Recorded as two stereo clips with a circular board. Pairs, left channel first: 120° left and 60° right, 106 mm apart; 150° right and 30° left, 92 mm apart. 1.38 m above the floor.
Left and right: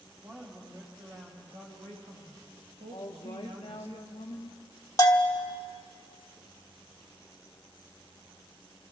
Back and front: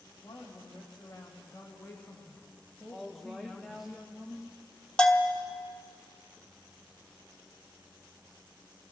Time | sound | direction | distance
0.2 | a woman speaking | 110° right | 2 m
2.9 | a woman speaking | 120° left | 0.8 m
5.0 | a bell | 140° left | 1.1 m